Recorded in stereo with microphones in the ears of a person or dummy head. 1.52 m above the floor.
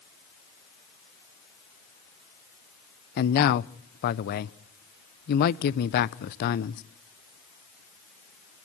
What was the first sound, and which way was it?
A man speaking, 50° left (ahead or behind).